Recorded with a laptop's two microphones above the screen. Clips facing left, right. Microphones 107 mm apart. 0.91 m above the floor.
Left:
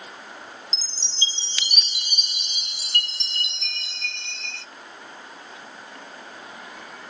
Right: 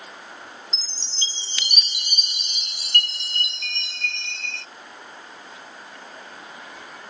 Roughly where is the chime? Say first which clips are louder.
Left 2 dB; right.